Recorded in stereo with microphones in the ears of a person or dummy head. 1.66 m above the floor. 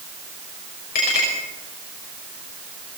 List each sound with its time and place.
0.9 s a clink: 60° left (ahead or behind), 6 m